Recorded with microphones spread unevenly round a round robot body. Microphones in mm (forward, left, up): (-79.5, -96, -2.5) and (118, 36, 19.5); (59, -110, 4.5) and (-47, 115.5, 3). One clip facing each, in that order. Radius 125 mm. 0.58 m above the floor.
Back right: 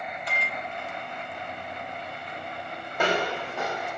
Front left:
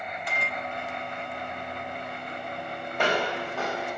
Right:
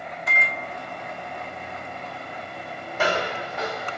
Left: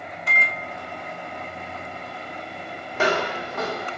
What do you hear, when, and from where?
0.3 s a microwave: 70° left, 1.0 m
2.9 s footsteps: 125° left, 1.3 m; by 4.0 s 105° left, 0.7 m